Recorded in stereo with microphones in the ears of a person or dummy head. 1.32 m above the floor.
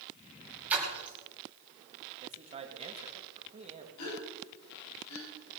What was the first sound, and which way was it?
A splash, 10° right (ahead or behind).